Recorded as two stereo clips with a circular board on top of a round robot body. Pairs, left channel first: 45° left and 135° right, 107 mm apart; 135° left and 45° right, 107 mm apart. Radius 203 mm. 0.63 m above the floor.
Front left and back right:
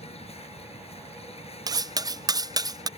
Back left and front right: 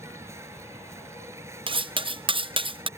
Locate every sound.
0.0 s an insect: 20° left
1.7 s cutlery clinking: 80° right